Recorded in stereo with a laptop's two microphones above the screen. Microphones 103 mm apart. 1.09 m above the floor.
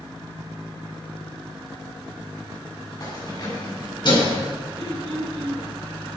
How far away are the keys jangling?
About 7 m.